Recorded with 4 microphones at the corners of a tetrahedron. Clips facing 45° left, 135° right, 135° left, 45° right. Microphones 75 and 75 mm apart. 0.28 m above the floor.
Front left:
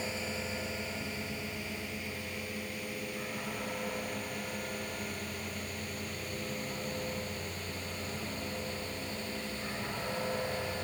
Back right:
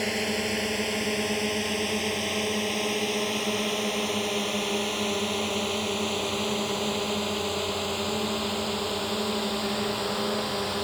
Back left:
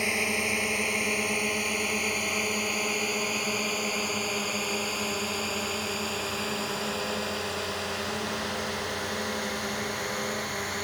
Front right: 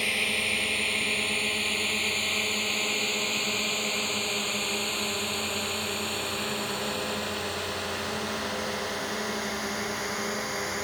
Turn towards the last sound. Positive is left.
turn(degrees=-130)